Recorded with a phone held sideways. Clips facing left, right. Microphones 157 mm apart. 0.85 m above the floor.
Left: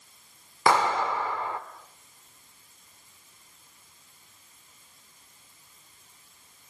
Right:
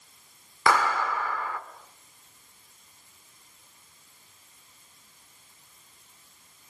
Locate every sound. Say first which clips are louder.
0.7 s a clap: left 1 dB; 25° left (ahead or behind), 1.6 m